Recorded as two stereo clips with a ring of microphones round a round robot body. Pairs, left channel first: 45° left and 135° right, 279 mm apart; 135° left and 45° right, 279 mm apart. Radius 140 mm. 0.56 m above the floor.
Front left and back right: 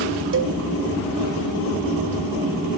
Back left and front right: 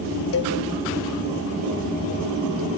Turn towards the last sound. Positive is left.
turn(degrees=175)